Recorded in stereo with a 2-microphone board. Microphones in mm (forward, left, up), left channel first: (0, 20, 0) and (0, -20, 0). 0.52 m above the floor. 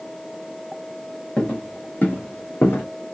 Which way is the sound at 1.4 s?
30° left (ahead or behind).